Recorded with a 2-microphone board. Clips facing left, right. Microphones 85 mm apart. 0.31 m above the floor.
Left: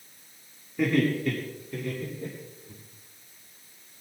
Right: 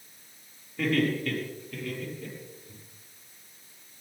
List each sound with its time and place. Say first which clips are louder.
0.8 s laughter: left 2 dB; 15° left (ahead or behind), 8 m; by 2.8 s 25° left (ahead or behind), 10.5 m